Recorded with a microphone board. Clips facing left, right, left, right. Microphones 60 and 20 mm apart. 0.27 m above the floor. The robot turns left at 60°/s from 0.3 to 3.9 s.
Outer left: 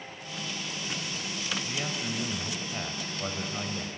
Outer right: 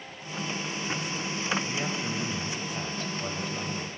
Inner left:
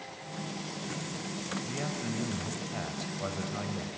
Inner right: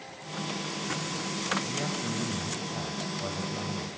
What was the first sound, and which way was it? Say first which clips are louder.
A man speaking: outer right 2 dB, inner right 3 dB; 10° right (ahead or behind).